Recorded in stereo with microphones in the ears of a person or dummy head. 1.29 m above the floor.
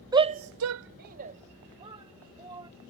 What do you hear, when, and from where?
0.1 s a shout: 20° right (ahead or behind); by 2.7 s 25° right (ahead or behind)